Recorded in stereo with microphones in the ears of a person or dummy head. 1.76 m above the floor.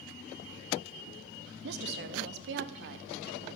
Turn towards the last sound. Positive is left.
turn(degrees=-60)  # may be behind; listen again after turning